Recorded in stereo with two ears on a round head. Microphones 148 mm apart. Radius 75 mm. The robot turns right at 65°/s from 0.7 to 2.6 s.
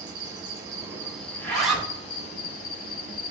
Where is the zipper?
160° left, 1.0 m; by 1.9 s 165° right, 1.0 m.